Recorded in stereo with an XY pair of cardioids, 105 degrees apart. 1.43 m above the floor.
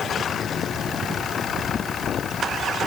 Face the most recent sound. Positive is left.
No sound to turn to.